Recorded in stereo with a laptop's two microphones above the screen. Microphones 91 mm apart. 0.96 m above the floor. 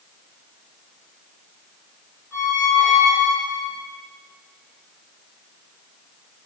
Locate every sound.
2.3 s a squeak: 30° right (ahead or behind), 4 m